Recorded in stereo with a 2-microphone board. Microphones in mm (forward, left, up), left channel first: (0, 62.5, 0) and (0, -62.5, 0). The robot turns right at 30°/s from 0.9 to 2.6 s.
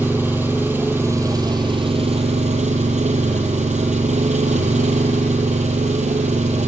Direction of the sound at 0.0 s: 165° right.